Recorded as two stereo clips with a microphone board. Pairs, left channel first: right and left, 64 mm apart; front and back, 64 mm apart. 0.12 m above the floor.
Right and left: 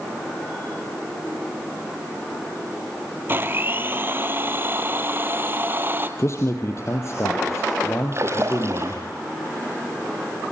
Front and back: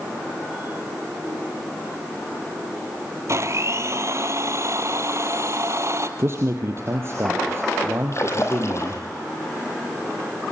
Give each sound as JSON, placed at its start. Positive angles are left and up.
{"t": 3.3, "sound": "a blender", "azimuth_deg": 145, "distance_m": 1.6}
{"t": 6.2, "sound": "a man speaking", "azimuth_deg": -130, "distance_m": 3.0}
{"t": 8.1, "sound": "a splash", "azimuth_deg": 45, "distance_m": 4.5}